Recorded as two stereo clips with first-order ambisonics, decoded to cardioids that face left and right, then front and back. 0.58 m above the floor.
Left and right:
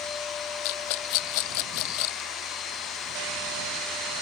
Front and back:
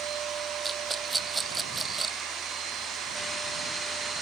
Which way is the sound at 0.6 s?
100° left.